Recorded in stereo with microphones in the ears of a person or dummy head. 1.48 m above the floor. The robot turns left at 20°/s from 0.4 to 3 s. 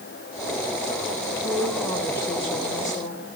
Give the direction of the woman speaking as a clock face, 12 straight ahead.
6 o'clock.